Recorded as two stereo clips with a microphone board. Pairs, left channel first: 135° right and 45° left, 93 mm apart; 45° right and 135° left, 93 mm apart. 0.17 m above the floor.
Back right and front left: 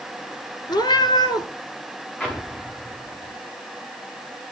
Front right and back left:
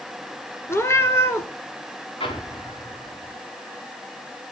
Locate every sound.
0.7 s a cat meowing: 105° right, 1.3 m
2.2 s an explosion: 60° right, 7.5 m